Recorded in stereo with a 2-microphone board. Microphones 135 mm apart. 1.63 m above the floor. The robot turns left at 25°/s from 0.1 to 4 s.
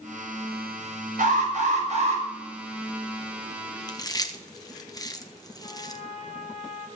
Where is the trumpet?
60° left (ahead or behind), 2 m.